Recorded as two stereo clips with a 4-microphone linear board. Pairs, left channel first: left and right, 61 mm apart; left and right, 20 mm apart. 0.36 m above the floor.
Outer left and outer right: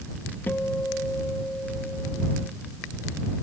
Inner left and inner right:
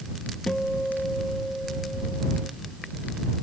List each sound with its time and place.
0.5 s a guitar: 35° left (ahead or behind)